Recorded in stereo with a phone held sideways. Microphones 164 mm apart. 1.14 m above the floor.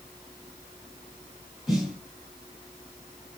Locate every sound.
1.7 s a snare drum: centre (ahead or behind), 3.5 m